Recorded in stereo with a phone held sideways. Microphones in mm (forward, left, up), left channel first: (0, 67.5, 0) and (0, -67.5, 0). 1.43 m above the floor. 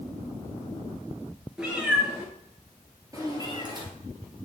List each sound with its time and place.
1.6 s a cat meowing: 5° right (ahead or behind), 2.5 m; by 3.9 s 30° right (ahead or behind), 2.5 m